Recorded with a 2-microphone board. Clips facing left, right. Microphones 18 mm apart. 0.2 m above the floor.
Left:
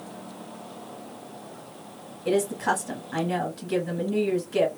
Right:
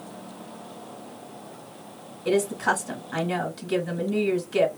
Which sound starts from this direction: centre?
A woman speaking, at 2.2 s.